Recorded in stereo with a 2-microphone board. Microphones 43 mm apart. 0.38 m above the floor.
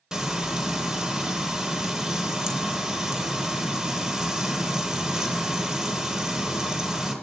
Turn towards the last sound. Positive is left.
turn(degrees=-15)  # may be behind; listen again after turning